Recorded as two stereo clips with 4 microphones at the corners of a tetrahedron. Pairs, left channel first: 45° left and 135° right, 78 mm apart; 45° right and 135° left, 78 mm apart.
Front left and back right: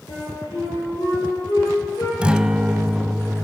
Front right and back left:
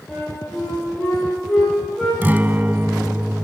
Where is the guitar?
160° left, 0.6 m.